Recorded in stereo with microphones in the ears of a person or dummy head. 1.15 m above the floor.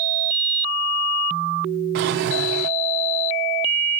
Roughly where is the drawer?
Right.